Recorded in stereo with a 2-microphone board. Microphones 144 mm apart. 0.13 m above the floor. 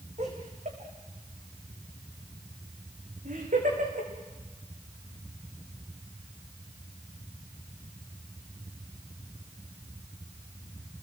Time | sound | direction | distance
0.2 | laughter | 55° right (ahead or behind) | 8 m